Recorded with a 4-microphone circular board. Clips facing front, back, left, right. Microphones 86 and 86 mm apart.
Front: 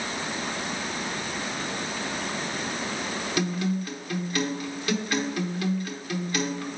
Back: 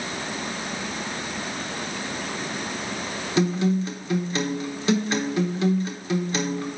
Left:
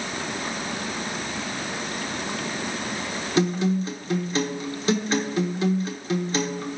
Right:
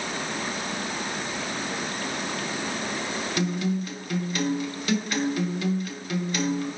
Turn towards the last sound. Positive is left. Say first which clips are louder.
# back 7 dB, left 6 dB
turn(degrees=135)